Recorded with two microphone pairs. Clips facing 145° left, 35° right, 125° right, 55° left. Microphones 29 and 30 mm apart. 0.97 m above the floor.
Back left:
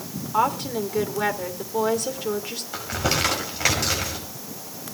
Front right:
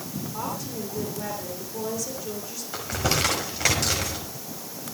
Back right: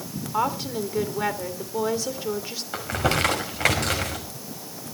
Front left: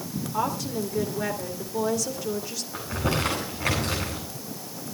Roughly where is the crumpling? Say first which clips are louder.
Back left 1 dB, back right 4 dB; behind right.